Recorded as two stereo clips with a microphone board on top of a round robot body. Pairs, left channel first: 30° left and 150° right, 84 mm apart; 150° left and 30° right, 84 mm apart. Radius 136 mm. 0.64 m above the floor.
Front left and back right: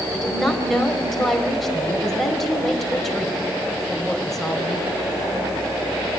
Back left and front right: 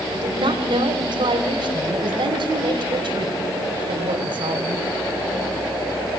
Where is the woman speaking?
55° right, 4.5 m.